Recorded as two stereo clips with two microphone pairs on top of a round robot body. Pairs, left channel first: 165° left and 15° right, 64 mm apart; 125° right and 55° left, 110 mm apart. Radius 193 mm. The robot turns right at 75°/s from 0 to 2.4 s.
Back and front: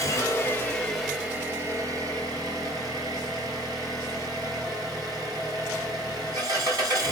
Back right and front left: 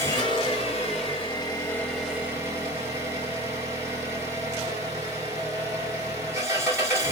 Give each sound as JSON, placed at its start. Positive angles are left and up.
{"t": 0.0, "sound": "an engine running", "azimuth_deg": 175, "distance_m": 1.6}